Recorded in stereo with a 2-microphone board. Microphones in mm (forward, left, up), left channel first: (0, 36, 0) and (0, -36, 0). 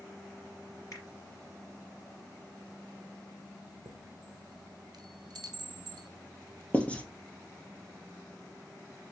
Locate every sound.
0.9 s a finger snap: 45° left (ahead or behind), 2 m
3.9 s a chime: 80° right, 0.7 m
6.7 s writing: 15° left (ahead or behind), 0.9 m